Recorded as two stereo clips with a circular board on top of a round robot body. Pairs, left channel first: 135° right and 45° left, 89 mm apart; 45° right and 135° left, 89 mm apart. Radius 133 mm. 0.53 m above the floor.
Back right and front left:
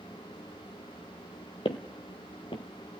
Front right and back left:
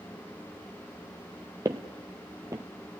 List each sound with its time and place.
1.6 s footsteps: 170° right, 0.7 m